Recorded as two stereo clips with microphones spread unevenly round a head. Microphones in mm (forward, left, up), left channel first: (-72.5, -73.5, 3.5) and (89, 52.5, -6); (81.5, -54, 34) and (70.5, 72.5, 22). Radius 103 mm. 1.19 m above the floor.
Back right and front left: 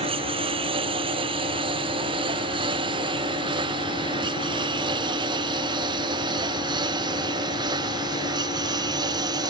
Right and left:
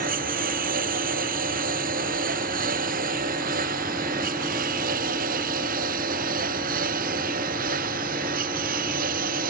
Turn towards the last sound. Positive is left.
turn(degrees=110)